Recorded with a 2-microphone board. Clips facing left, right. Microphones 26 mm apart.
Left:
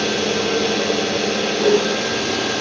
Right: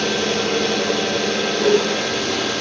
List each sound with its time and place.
0.0 s an engine running: 20° right (ahead or behind), 1.1 m
1.6 s a whoosh: 20° left (ahead or behind), 1.7 m